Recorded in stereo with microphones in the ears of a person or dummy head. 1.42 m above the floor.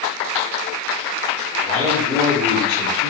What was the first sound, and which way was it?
A man speaking, 25° right (ahead or behind).